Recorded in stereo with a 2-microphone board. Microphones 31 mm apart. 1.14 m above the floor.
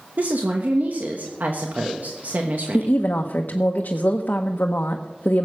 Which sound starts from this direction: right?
A woman speaking, at 0.2 s.